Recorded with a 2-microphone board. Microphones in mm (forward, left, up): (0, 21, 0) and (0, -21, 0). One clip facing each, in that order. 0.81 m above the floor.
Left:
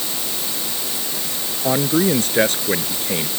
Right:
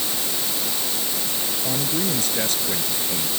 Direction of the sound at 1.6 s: 45° left (ahead or behind).